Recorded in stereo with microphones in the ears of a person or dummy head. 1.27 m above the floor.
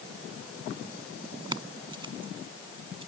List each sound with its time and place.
1.5 s keys jangling: 25° right (ahead or behind); by 3.1 s 35° right (ahead or behind)